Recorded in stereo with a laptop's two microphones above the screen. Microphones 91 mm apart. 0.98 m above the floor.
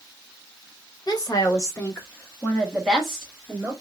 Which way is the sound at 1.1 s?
45° left (ahead or behind).